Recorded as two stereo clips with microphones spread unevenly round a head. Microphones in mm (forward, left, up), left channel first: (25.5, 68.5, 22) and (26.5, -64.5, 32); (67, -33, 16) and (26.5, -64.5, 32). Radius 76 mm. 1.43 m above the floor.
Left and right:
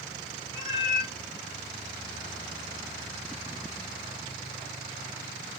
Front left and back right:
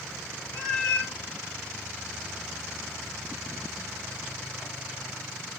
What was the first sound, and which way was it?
A cat meowing, 60° right.